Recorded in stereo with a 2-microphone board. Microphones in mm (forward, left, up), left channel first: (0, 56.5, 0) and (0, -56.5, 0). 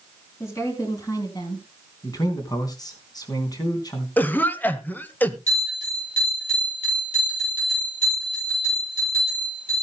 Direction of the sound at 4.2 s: 15° left (ahead or behind).